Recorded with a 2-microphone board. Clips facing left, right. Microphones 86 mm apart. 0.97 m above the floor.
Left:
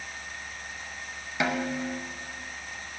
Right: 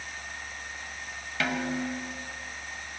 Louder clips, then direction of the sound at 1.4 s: Left 1 dB; 20° left (ahead or behind).